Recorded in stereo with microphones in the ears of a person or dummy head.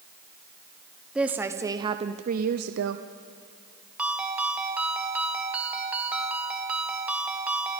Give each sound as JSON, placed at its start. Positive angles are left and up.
{"t": 1.1, "sound": "a woman speaking", "side_deg": -5, "distance_m": 1.1}
{"t": 4.0, "sound": "a ringtone", "side_deg": -5, "distance_m": 1.6}